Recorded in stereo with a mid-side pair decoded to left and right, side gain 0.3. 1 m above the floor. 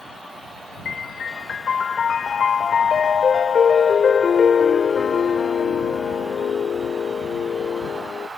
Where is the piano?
70° left.